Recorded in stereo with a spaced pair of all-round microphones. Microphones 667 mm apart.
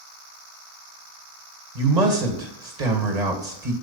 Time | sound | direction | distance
1.8 | a man speaking | 75° right (ahead or behind) | 2 m